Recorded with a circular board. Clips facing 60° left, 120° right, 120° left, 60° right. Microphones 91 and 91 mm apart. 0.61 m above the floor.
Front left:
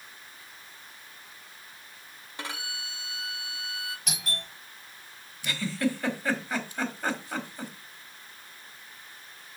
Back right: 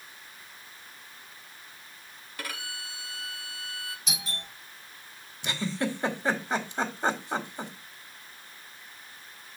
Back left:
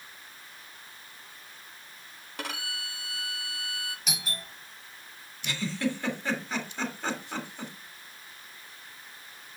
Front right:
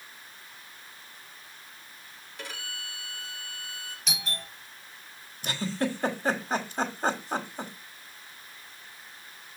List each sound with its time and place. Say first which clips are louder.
2.4 s a violin: front left 1 dB, back left 4 dB; 125° left, 1.1 m
4.1 s a doorbell: front left 1 dB, front right 1 dB; 35° left, 5 m
5.4 s a giggle: front left 2 dB, front right 1 dB; 70° right, 1.3 m